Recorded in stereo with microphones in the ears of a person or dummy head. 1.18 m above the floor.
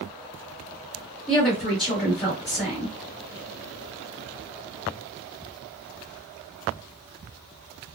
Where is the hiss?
No hiss in this recording.